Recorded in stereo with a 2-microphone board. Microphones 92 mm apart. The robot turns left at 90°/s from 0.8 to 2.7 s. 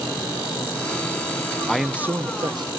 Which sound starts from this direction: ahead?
A man speaking, at 1.7 s.